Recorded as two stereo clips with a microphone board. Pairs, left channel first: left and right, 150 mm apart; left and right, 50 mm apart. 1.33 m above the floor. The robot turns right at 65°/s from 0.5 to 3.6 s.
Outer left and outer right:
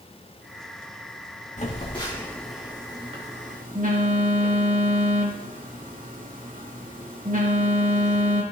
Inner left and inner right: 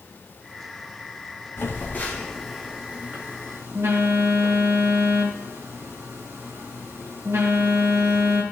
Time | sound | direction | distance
1.6 | a phone buzzing | 60° left (ahead or behind) | 3 m